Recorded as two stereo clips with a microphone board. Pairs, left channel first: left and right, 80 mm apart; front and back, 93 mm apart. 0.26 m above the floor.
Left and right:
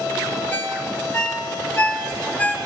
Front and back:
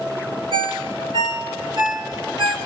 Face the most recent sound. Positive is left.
turn(degrees=160)